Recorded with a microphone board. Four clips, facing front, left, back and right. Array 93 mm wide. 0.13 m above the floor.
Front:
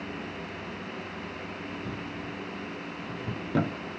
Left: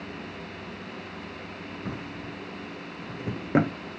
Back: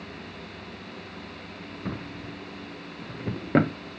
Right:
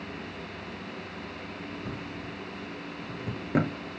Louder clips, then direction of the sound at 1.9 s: Left 1 dB, even; 155° left.